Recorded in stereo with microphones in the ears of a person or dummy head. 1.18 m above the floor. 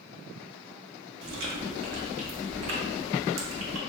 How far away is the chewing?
About 0.7 m.